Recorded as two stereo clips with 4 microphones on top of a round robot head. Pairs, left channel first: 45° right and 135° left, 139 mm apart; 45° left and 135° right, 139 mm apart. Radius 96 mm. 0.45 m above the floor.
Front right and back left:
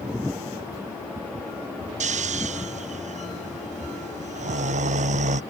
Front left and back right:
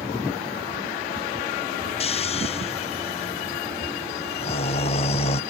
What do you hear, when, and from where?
2.0 s snoring: 95° left